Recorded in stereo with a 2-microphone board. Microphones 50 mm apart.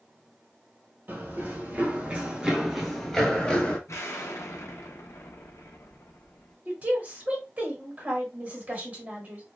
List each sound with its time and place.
1.1 s running footsteps: 45° right (ahead or behind), 1.1 m; by 3.8 s 25° left (ahead or behind), 1.0 m
3.9 s an explosion: 75° left (ahead or behind), 0.6 m
6.7 s a woman speaking: 35° right (ahead or behind), 1.2 m